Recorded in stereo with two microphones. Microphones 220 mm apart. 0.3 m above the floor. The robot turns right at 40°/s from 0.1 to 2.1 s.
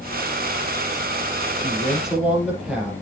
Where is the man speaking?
15° left (ahead or behind), 6.5 m; by 2.9 s 5° right (ahead or behind), 6.5 m.